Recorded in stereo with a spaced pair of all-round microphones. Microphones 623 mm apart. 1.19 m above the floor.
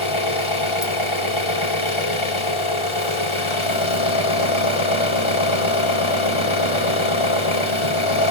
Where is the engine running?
50° left (ahead or behind), 1.6 m.